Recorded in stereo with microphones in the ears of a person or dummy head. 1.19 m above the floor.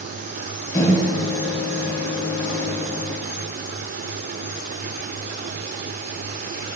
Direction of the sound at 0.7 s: 15° left (ahead or behind).